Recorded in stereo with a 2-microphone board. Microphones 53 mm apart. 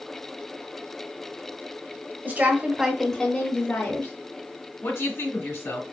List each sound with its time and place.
2.2 s a woman speaking: 40° right (ahead or behind), 1.4 m; by 4.1 s 50° left (ahead or behind), 1.7 m
4.8 s a woman speaking: 65° left (ahead or behind), 1.8 m